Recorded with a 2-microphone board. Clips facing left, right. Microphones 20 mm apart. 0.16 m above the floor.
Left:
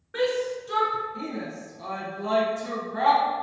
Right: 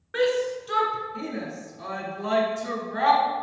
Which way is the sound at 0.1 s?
30° right (ahead or behind).